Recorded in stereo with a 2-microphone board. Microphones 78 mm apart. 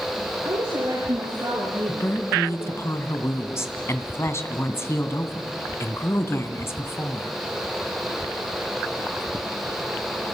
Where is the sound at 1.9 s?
35° left (ahead or behind), 2.5 m.